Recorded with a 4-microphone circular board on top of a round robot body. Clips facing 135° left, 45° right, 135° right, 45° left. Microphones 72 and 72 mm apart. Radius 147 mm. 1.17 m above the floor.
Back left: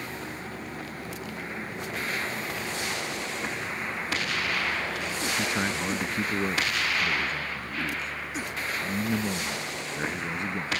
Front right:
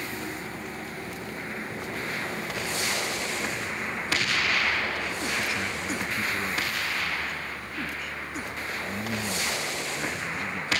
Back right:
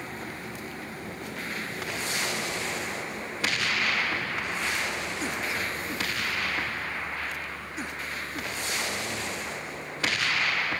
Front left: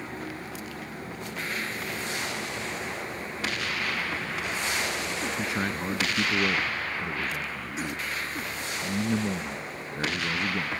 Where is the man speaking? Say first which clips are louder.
Back left 2 dB, front left 2 dB; 85° left; by 10.7 s 70° left.